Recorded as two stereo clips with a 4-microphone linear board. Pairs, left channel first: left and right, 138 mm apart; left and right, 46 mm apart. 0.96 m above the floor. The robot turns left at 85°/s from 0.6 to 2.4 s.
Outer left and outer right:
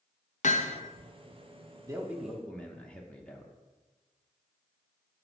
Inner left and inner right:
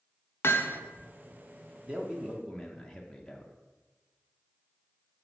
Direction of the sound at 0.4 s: 60° left (ahead or behind).